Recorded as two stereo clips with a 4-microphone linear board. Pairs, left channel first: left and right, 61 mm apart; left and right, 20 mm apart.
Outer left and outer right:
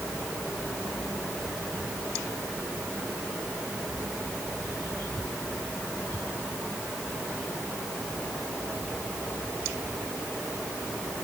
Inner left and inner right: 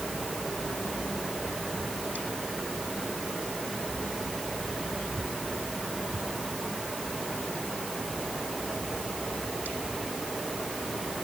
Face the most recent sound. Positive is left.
No sound to turn to.